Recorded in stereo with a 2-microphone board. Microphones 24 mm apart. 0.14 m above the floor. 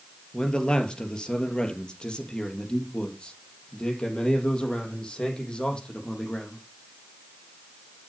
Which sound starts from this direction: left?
A man speaking, at 0.3 s.